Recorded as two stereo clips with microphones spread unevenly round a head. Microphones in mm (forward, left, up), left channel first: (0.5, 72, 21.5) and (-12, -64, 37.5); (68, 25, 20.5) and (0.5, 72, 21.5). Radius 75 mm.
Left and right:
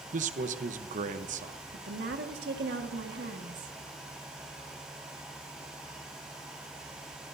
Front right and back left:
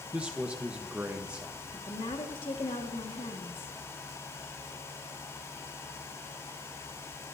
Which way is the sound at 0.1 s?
135° right.